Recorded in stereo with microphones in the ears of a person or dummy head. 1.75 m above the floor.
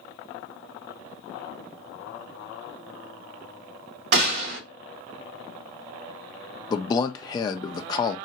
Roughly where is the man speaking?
Left.